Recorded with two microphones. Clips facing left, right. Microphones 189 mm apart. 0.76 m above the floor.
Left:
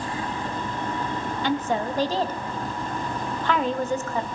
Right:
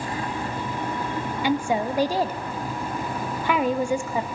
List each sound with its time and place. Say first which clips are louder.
1.4 s a woman speaking: right 2 dB; 10° right (ahead or behind), 0.6 m